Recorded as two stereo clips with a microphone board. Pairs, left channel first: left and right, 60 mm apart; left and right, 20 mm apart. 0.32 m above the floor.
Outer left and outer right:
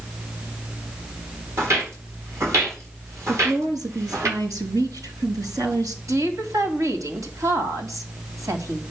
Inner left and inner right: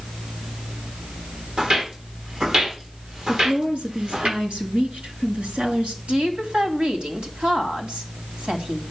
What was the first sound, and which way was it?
Footsteps, 50° right (ahead or behind).